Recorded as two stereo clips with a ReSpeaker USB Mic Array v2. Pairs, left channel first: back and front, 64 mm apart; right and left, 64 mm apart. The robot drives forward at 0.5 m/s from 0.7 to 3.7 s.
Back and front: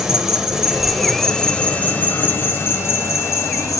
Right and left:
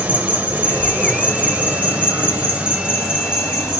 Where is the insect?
70° left, 1.0 m; by 3.8 s 165° left, 1.7 m.